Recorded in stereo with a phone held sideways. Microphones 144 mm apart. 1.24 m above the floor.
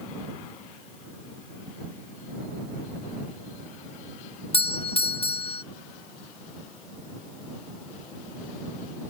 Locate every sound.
4.5 s a doorbell: 40° left (ahead or behind)